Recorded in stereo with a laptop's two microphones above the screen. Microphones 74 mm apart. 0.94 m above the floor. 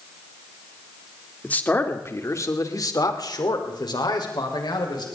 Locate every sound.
1.4 s a man speaking: 20° left (ahead or behind), 2.5 m; by 5.1 s 85° left, 4.5 m